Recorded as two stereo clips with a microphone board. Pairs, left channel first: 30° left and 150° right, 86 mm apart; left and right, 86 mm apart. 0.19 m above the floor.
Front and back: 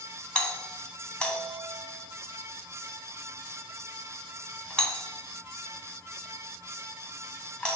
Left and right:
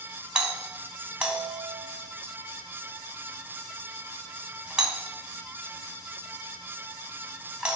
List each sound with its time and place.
0.3 s a doorbell: 35° right, 1.4 m